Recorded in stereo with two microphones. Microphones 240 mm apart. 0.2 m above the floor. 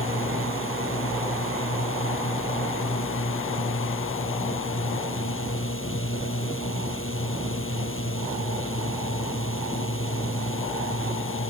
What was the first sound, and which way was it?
A drone, 60° left (ahead or behind).